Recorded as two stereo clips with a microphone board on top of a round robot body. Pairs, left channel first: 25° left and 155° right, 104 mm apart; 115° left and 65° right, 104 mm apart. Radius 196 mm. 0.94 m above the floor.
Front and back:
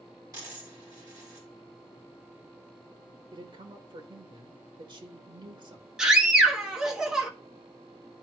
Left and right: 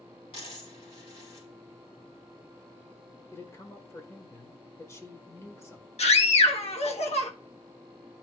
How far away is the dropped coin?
About 4 m.